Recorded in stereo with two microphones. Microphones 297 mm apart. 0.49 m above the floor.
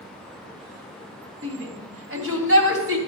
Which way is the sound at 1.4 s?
50° right (ahead or behind).